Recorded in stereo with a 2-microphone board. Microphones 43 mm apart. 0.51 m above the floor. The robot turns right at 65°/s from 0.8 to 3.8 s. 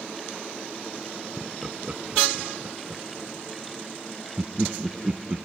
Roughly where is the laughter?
Centre.